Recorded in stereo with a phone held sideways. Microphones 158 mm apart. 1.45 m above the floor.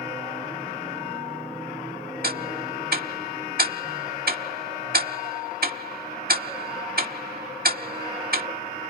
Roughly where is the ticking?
Right.